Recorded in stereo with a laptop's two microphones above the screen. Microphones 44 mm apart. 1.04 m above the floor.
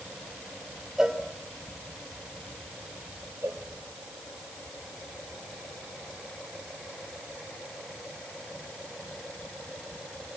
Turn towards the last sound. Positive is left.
turn(degrees=-70)  # may be behind; listen again after turning